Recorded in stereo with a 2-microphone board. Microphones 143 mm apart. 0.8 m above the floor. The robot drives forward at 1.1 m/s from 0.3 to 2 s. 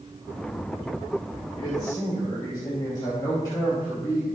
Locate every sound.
1.6 s a man speaking: 35° left (ahead or behind), 2.5 m; by 4.3 s 30° left (ahead or behind), 3 m